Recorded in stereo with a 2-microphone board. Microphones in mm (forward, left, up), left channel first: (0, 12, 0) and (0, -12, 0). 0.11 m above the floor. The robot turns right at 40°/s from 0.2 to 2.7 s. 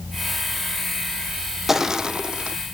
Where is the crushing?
170° right, 1.3 m; by 2.6 s 135° right, 1.3 m.